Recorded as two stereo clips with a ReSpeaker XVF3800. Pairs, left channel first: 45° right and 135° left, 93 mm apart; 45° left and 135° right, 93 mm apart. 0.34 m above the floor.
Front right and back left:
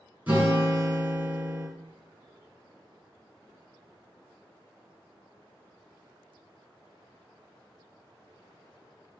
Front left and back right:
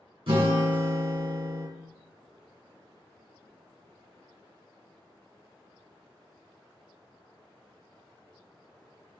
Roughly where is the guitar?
Behind right.